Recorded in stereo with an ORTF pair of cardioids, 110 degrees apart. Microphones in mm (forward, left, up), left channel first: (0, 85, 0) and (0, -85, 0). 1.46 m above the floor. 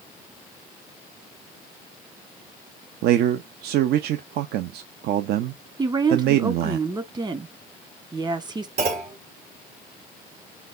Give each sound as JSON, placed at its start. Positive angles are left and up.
{"t": 3.0, "sound": "a man speaking", "azimuth_deg": -70, "distance_m": 0.6}
{"t": 5.8, "sound": "a woman speaking", "azimuth_deg": -25, "distance_m": 1.3}
{"t": 8.8, "sound": "a clunk", "azimuth_deg": -60, "distance_m": 1.9}